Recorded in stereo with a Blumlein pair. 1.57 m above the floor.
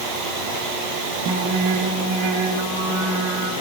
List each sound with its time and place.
1.2 s singing: 40° right, 2.5 m